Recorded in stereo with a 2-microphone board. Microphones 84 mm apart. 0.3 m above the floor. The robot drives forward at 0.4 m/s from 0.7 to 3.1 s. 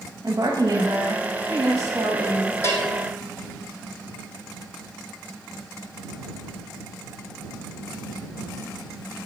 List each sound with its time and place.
0.2 s a woman speaking: 45° right (ahead or behind), 1.6 m; by 2.5 s 35° right (ahead or behind), 2.0 m
2.6 s a bell: 35° left (ahead or behind), 2.5 m; by 3.0 s 30° left (ahead or behind), 2.5 m